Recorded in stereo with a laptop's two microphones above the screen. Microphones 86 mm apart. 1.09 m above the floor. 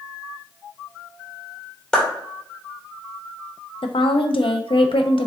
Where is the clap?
10° left (ahead or behind), 2 m.